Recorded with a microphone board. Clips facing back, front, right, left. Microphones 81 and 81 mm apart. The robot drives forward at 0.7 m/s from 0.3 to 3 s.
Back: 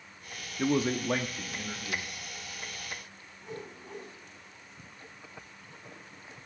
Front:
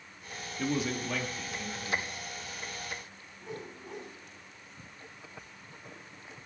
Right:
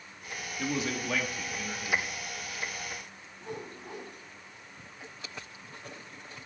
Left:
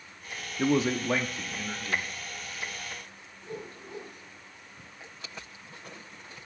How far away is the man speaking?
About 0.7 m.